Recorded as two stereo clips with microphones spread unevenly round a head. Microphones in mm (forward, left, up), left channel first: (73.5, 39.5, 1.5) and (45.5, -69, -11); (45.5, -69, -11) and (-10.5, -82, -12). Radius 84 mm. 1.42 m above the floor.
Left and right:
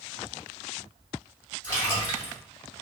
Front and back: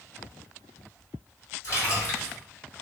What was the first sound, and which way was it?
A splash, 35° left.